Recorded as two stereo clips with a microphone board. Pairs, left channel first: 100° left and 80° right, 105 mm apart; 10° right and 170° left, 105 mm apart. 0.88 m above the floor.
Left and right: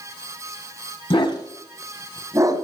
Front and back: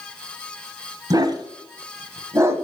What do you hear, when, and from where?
1.1 s a dog barking: 125° left, 1.3 m; by 2.6 s 125° right, 1.4 m